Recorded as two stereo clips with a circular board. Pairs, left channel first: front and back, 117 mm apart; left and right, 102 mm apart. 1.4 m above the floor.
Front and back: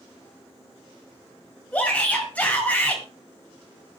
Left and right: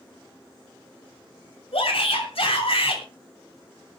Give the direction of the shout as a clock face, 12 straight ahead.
9 o'clock.